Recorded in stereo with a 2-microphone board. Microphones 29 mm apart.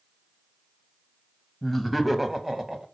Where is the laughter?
5° left (ahead or behind), 1.2 m; by 2.9 s 25° right (ahead or behind), 1.5 m.